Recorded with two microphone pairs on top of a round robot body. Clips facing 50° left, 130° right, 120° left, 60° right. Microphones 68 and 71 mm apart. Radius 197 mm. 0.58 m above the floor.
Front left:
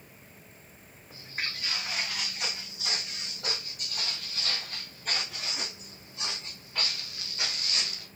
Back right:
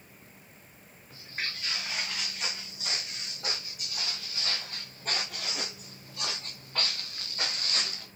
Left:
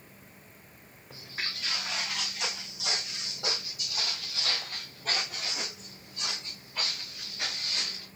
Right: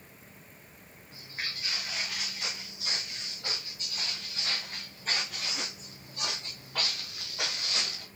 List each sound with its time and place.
1.1 s footsteps: 130° left, 2.5 m; by 8.1 s 75° right, 1.5 m